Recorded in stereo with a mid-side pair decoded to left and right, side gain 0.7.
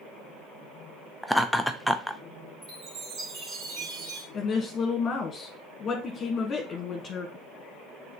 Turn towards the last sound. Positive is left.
turn(degrees=35)